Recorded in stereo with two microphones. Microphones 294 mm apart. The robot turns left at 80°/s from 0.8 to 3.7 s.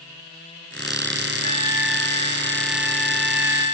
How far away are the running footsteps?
I don't hear running footsteps.